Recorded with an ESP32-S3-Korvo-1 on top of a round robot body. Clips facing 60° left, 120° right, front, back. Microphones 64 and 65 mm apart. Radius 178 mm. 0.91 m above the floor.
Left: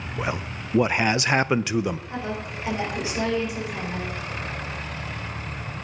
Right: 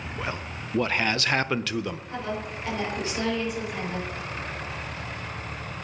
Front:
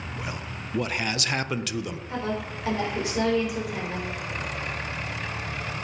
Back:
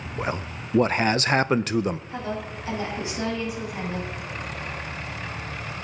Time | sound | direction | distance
0.2 | a man speaking | 135° left | 0.5 m
2.1 | a woman speaking | 15° right | 4.5 m